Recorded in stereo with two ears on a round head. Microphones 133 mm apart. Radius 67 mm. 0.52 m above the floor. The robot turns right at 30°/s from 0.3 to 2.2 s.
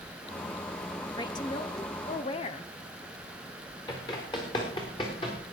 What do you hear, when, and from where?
1.2 s a woman speaking: 45° left, 0.8 m; by 2.7 s 75° left, 0.8 m
3.9 s running footsteps: 30° left (ahead or behind), 4 m; by 5.4 s 35° left (ahead or behind), 4.5 m